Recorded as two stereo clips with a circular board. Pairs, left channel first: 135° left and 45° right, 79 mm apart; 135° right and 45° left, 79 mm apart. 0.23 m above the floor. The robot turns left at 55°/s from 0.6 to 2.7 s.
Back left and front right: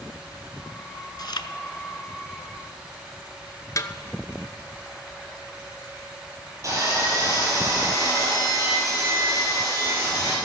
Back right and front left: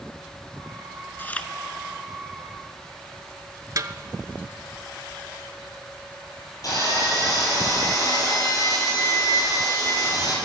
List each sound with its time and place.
1.2 s chewing: 165° left, 0.7 m; by 1.5 s 145° left, 0.7 m
3.8 s a snare drum: 90° left, 0.6 m
6.6 s sawing: 90° right, 5.5 m